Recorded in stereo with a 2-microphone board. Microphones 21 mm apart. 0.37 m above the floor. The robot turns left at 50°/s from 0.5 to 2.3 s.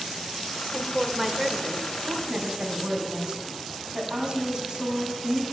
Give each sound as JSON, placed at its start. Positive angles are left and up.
{"t": 0.7, "sound": "a woman speaking", "side_deg": 0, "distance_m": 1.1}
{"t": 2.0, "sound": "a woman speaking", "side_deg": -55, "distance_m": 2.5}